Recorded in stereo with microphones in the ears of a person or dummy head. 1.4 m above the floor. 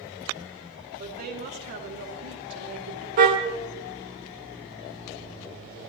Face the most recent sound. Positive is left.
turn(degrees=-50)  # may be behind; listen again after turning